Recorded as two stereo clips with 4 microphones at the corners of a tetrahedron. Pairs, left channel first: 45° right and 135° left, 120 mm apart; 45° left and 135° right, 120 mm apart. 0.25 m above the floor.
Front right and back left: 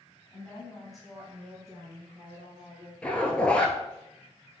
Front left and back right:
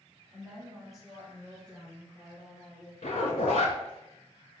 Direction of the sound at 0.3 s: 80° right.